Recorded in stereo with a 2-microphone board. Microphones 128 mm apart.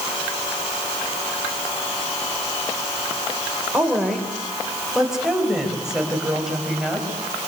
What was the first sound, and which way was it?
A woman speaking, 5° right (ahead or behind).